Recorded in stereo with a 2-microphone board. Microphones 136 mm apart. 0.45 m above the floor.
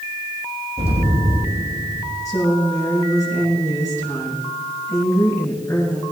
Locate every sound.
0.8 s an explosion: 45° right (ahead or behind), 4.5 m
2.2 s a woman speaking: 25° left (ahead or behind), 6.5 m